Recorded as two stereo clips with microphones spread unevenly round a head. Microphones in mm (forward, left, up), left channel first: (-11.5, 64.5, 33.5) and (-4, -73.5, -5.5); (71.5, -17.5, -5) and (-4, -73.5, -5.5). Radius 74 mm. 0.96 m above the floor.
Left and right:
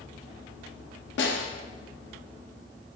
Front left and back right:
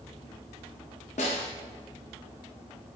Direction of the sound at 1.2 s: 75° left.